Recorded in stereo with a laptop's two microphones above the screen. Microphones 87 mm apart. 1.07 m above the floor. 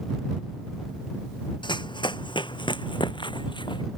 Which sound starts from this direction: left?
Running footsteps, at 1.6 s.